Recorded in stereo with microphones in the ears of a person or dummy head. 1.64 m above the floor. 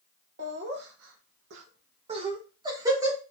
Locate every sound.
0.4 s laughter: 45° right (ahead or behind), 0.8 m; by 3.2 s 20° right (ahead or behind), 1.5 m